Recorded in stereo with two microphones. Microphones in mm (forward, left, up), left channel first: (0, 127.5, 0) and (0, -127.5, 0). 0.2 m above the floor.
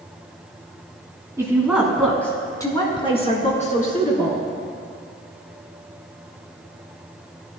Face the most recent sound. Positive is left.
turn(degrees=35)  # may be behind; listen again after turning